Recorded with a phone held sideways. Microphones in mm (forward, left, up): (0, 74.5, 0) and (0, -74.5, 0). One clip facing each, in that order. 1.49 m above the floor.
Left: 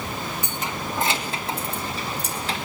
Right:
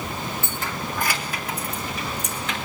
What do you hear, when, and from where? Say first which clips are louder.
0.4 s keys jangling: even; 20° left (ahead or behind), 2 m; by 2.5 s 35° left (ahead or behind), 4 m